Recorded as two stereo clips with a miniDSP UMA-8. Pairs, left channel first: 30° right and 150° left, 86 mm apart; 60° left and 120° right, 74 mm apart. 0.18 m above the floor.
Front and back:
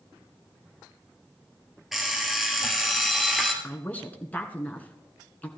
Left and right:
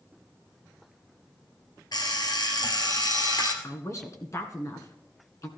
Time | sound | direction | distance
1.9 | an alarm clock | 65° left | 2 m
3.6 | a woman speaking | 40° left | 1.8 m